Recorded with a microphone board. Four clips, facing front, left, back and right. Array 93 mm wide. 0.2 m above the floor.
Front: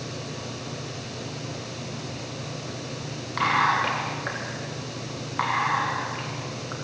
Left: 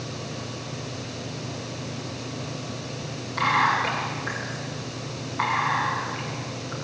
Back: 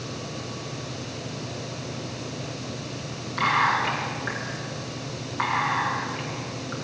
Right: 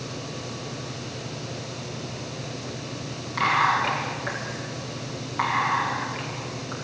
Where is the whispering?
20° right, 8 m.